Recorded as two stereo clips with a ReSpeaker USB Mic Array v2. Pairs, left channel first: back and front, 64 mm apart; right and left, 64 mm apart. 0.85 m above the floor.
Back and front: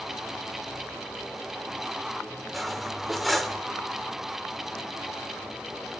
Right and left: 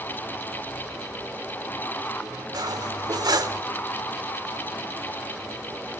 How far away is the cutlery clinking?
About 1.8 m.